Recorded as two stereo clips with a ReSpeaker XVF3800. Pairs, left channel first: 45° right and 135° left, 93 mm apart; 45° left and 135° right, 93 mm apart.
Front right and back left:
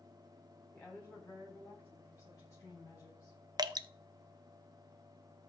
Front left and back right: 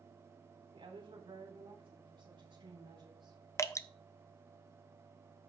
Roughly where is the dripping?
Left.